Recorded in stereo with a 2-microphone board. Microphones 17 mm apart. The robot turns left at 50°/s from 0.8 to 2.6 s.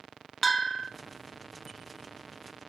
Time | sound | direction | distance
0.4 | a bell | 5° left (ahead or behind) | 0.7 m